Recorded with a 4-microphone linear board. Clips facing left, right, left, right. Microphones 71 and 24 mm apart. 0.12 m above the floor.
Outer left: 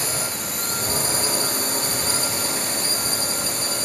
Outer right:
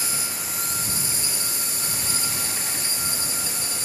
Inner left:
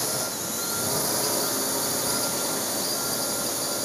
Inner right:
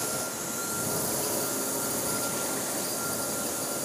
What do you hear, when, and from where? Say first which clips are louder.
0.0 s a drone: outer left 4 dB, inner left 3 dB; 55° left (ahead or behind)